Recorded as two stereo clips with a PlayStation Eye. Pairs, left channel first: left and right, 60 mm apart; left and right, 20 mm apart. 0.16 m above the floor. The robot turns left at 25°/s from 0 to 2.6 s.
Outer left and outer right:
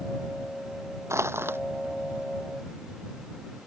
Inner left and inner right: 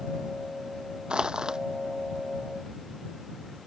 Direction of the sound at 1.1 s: 50° right (ahead or behind).